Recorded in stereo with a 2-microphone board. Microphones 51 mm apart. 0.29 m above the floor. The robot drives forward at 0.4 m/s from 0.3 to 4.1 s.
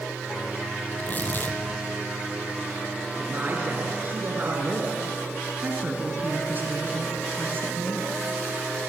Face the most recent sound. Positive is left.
turn(degrees=-35)  # may be behind; listen again after turning